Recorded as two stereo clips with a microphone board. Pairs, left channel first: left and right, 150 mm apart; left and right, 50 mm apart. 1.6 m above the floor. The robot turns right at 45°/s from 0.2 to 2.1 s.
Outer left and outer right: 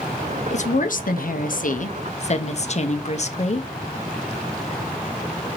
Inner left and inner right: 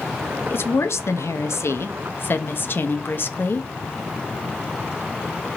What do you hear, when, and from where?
0.5 s a woman speaking: 55° left, 0.5 m; by 3.7 s 125° left, 0.5 m